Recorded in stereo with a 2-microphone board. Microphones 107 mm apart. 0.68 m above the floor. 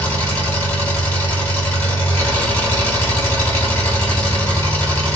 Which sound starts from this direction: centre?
An engine running, at 0.0 s.